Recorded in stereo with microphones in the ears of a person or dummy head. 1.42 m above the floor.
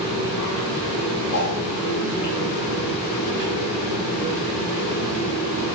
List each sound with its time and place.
0.0 s a fan: 25° left (ahead or behind), 1.1 m
1.3 s a whoosh: 55° left (ahead or behind), 0.7 m